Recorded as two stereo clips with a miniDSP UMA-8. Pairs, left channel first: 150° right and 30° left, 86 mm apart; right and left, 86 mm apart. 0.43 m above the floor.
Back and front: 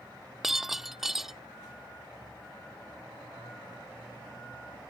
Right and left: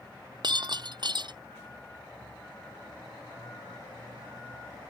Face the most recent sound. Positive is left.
turn(degrees=115)